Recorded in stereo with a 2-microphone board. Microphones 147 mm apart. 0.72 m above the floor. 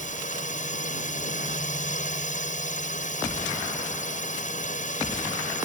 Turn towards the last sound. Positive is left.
turn(degrees=55)  # may be behind; listen again after turning